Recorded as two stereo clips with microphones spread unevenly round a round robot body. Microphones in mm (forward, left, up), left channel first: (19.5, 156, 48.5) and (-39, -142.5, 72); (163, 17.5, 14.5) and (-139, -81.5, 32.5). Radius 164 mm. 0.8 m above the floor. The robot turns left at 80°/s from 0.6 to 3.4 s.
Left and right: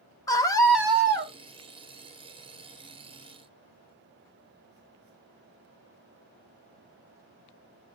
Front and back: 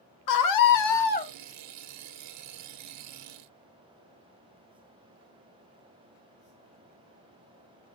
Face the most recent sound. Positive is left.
turn(degrees=135)